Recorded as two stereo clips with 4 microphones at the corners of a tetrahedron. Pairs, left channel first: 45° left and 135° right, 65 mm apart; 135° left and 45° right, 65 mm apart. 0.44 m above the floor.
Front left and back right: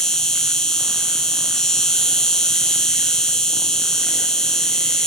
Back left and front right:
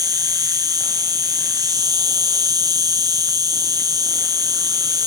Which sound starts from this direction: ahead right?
An insect, at 0.0 s.